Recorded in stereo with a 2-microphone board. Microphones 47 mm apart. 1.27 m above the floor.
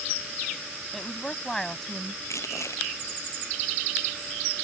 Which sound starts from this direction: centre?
A woman speaking, at 0.9 s.